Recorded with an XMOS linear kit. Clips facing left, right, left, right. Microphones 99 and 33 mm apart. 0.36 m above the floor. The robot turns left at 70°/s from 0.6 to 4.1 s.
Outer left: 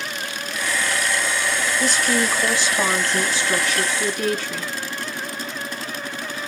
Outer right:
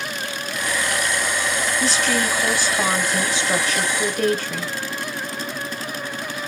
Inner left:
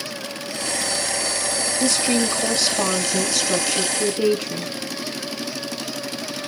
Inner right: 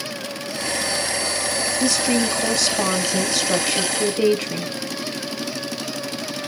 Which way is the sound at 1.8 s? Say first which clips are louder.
Outer left 1 dB, even; 85° left.